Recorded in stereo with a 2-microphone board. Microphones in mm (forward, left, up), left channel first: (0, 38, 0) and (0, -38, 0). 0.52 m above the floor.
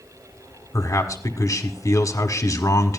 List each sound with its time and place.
0.7 s a man speaking: 45° left (ahead or behind), 1.6 m